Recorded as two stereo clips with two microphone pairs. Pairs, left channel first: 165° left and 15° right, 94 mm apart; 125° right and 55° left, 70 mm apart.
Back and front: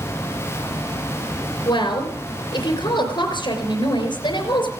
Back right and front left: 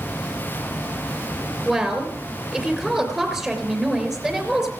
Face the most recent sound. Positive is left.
turn(degrees=145)